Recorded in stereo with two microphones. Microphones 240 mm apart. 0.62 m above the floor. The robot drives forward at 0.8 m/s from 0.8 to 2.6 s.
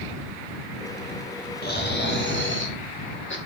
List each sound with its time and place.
1.6 s snoring: 40° left (ahead or behind), 3 m; by 3.4 s 50° left (ahead or behind), 2.5 m